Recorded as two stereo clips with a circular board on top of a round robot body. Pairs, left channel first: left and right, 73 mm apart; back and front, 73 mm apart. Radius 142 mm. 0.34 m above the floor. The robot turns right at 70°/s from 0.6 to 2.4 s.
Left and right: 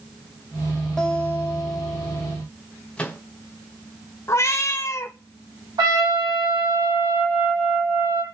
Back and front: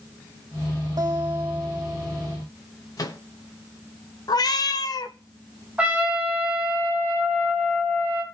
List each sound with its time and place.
1.0 s a guitar: 15° left, 2.5 m; by 2.4 s 110° left, 2.5 m
3.0 s a microwave: 160° left, 1.9 m
4.3 s a cat meowing: 145° left, 0.8 m
5.8 s a trumpet: 75° right, 4.5 m